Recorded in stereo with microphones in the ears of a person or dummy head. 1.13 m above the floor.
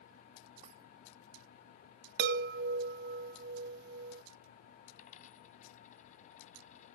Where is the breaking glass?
40° right (ahead or behind).